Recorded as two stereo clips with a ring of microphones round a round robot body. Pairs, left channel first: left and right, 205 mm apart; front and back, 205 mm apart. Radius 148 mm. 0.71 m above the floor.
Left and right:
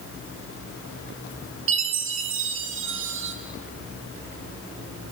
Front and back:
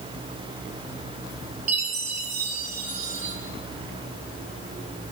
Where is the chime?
120° right, 1.7 m.